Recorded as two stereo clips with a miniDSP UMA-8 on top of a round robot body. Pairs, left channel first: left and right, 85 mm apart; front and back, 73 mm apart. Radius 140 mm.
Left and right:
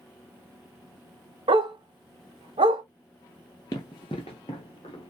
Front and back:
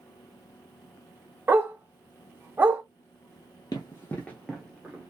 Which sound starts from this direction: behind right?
A dog barking, at 1.5 s.